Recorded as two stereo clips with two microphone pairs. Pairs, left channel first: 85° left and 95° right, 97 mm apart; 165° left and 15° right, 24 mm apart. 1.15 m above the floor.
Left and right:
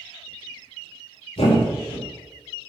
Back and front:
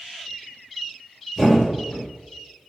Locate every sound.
1.4 s a thud: 65° left, 2 m